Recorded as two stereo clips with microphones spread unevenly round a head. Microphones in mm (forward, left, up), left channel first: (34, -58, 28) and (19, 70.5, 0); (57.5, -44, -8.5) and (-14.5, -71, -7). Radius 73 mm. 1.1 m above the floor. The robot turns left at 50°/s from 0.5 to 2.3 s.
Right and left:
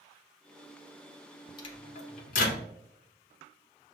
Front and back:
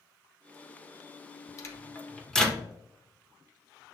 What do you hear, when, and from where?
1.6 s a microwave: 25° right, 0.8 m; by 2.6 s 60° right, 0.8 m